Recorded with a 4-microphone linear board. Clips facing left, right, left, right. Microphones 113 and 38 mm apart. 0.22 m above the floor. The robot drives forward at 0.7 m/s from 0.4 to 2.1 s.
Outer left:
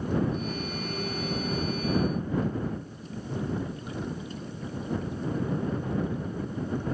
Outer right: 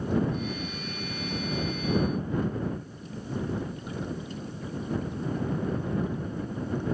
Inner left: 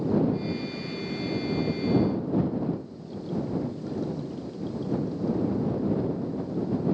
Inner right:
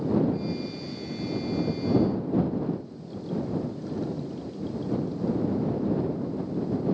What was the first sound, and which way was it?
Only background noise.